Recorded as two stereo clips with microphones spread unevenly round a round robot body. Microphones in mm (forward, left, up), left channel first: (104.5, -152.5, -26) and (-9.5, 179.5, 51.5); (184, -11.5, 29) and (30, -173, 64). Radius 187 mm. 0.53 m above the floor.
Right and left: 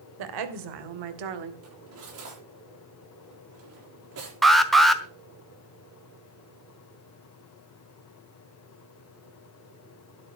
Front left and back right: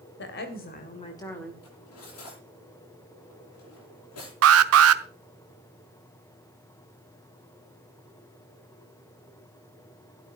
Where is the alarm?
155° right, 0.8 m.